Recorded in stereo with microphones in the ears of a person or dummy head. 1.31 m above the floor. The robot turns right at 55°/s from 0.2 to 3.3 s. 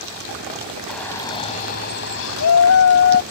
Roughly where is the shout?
Ahead.